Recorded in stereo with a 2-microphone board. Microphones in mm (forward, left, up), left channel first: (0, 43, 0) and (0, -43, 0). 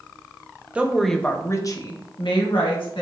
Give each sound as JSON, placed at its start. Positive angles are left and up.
{"t": 0.8, "sound": "a woman speaking", "side_deg": -15, "distance_m": 0.7}